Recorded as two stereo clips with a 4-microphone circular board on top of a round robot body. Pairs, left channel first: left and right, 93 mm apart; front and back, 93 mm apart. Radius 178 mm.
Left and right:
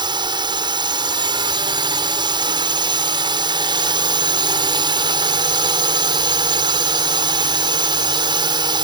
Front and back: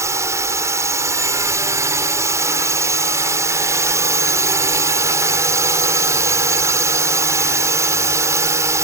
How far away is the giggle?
No giggle in this recording.